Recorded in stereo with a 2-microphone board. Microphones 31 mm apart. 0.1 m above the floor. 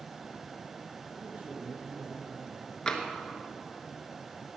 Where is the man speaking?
55° right (ahead or behind), 3 m.